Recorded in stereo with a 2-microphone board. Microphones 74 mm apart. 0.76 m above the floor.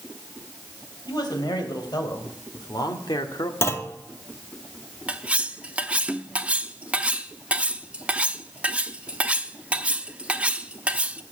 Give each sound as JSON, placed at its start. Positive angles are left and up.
{"t": 1.1, "sound": "a man speaking", "side_deg": 80, "distance_m": 3.5}
{"t": 3.6, "sound": "a clunk", "side_deg": 35, "distance_m": 1.0}
{"t": 5.1, "sound": "cutlery clinking", "side_deg": -15, "distance_m": 0.7}